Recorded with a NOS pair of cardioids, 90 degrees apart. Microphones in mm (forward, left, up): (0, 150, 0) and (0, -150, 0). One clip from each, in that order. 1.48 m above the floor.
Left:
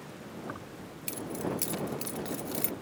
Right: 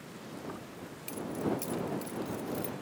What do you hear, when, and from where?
0.5 s keys jangling: 45° left; by 2.7 s 80° left